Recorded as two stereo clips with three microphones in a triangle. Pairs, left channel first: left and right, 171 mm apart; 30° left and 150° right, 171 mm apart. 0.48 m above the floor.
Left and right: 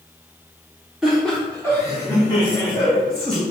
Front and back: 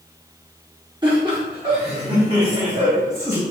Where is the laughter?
170° right, 0.9 m; by 3.4 s 140° left, 1.9 m.